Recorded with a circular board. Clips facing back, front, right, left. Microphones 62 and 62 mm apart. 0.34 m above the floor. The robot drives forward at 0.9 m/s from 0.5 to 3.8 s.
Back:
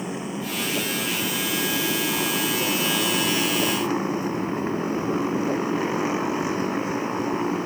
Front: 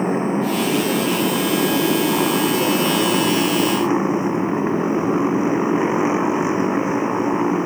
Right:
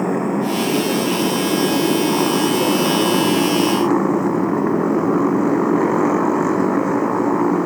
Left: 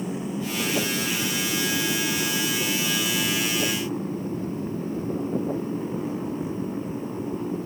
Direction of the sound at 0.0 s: 55° right.